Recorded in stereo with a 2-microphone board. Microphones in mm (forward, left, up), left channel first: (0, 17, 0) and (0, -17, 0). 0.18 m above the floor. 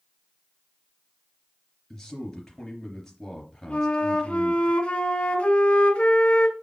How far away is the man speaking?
About 3.5 m.